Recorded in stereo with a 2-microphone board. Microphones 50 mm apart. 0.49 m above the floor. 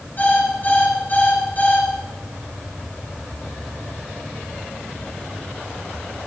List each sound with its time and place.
0.2 s an alarm clock: 40° left (ahead or behind), 5 m